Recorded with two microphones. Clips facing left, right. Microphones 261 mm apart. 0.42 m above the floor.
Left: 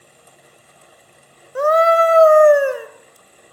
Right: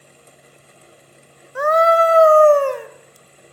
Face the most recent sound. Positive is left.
turn(degrees=5)  # may be behind; listen again after turning